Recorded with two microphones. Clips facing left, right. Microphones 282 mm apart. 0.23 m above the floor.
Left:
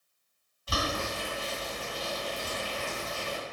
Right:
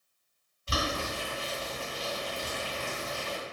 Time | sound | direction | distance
0.7 | boiling | 30° right (ahead or behind) | 1.9 m